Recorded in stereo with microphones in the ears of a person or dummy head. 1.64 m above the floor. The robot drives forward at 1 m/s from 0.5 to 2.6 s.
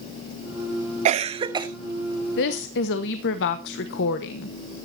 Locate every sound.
1.1 s a cough: 40° right (ahead or behind), 0.6 m; by 1.7 s 20° right (ahead or behind), 1.2 m
2.4 s a woman speaking: 65° left (ahead or behind), 1.1 m